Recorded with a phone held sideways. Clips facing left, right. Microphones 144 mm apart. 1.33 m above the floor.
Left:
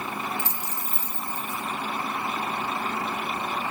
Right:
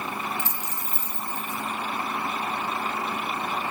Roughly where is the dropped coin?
Centre.